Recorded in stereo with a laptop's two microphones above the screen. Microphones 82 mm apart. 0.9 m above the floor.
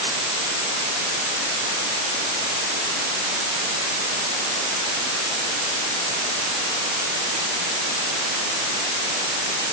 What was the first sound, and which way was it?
Only background noise.